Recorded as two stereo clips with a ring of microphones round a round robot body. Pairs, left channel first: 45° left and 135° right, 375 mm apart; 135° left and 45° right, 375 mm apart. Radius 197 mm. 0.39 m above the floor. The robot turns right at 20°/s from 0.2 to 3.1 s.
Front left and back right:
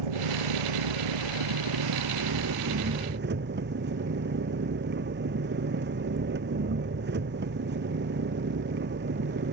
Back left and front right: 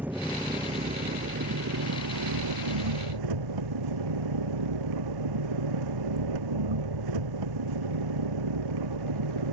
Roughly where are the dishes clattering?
I don't hear dishes clattering.